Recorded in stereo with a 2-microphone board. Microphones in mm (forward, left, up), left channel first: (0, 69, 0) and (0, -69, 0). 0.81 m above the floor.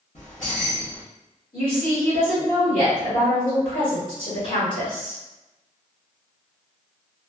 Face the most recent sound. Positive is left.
turn(degrees=75)  # may be behind; listen again after turning